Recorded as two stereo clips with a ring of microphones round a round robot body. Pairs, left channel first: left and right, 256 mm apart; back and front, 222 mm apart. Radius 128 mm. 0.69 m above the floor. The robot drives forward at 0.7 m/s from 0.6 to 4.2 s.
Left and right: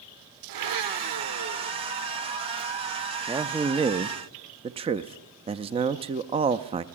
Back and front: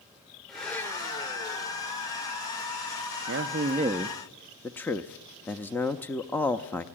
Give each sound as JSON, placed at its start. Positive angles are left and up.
{"t": 0.5, "sound": "a blender", "azimuth_deg": -90, "distance_m": 1.2}
{"t": 3.3, "sound": "a man speaking", "azimuth_deg": -15, "distance_m": 0.8}